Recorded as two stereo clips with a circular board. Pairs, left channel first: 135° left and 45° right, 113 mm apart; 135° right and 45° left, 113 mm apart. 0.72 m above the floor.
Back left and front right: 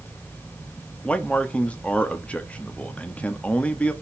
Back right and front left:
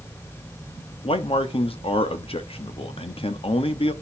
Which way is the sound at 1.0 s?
150° right.